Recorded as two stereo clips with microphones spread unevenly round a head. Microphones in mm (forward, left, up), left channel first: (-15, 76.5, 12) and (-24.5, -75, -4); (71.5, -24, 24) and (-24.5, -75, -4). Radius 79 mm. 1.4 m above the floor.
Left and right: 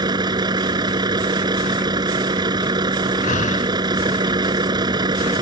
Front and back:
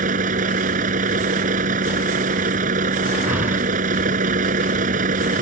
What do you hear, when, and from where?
0.0 s a vehicle: 160° right
3.2 s breathing: 125° left